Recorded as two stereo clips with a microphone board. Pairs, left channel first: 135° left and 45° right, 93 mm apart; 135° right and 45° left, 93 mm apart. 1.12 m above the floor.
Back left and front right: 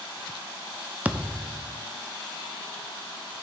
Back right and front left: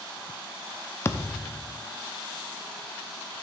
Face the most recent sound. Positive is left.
turn(degrees=-105)